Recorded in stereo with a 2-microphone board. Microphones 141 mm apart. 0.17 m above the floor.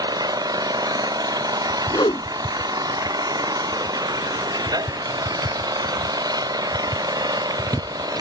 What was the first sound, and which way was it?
An engine running, 25° right (ahead or behind).